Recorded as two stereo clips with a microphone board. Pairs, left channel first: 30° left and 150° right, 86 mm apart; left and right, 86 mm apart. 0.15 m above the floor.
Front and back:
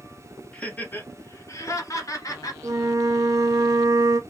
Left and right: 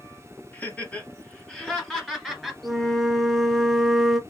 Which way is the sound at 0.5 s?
75° left.